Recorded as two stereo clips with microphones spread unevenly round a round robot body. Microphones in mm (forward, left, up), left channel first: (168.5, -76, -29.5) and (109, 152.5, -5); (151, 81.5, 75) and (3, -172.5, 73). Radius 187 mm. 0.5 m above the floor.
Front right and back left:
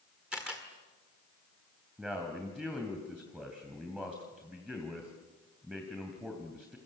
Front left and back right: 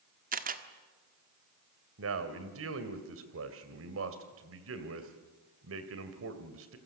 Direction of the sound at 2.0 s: 165° right.